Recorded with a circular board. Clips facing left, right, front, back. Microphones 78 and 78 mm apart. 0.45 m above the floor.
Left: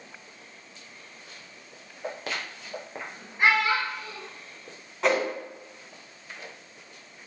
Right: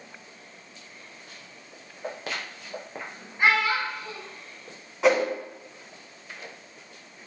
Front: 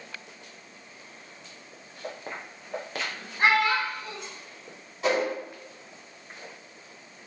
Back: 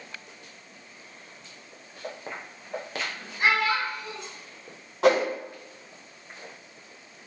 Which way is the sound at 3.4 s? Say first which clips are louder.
Even, front 1 dB; 5° left.